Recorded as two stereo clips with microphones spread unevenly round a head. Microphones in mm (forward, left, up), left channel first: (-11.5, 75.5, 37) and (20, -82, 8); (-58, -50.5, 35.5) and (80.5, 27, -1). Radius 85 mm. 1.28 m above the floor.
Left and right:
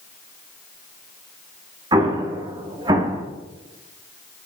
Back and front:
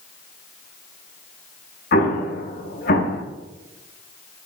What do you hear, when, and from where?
1.9 s an explosion: 150° right, 1.2 m